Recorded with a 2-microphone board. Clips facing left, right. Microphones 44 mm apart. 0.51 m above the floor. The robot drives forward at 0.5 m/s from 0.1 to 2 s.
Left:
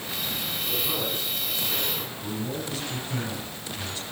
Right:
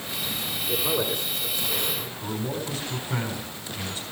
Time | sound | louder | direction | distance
0.7 | a man speaking | right 5 dB | 40° right (ahead or behind) | 6.5 m
2.2 | a man speaking | right 2 dB | 20° right (ahead or behind) | 4.5 m